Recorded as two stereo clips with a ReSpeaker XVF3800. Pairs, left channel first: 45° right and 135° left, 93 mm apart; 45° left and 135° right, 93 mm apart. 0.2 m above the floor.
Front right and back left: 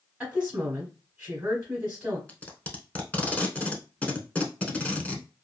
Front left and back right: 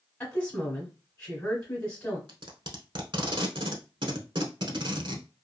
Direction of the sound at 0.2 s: 85° left.